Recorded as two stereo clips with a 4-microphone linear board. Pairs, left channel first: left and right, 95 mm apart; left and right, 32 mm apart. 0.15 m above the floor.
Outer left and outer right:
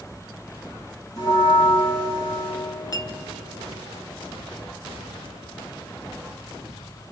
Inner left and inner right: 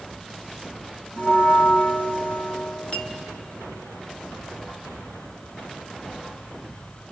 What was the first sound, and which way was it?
A bell, 45° left (ahead or behind).